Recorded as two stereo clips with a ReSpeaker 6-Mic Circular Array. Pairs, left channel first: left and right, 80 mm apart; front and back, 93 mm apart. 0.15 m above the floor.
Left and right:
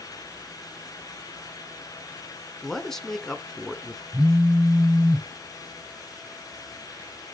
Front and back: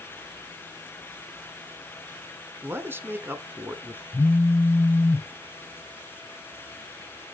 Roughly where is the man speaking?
Behind.